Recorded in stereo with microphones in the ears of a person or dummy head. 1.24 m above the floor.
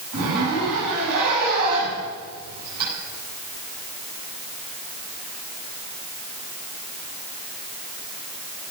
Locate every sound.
0.1 s a zipper: 55° right (ahead or behind), 9.5 m